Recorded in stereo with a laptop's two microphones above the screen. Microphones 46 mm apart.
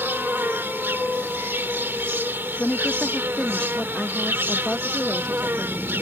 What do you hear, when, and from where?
0.0 s an insect: 55° right (ahead or behind)
2.6 s a woman speaking: 20° left (ahead or behind)